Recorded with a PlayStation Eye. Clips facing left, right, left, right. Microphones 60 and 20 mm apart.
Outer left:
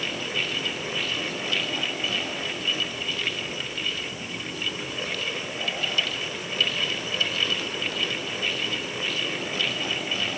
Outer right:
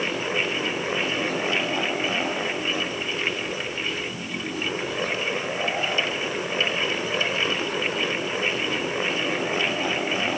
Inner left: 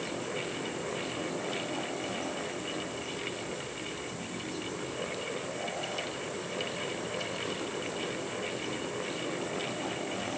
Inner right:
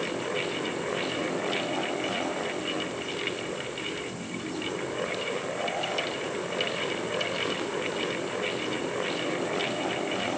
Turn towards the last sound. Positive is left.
No sound to turn to.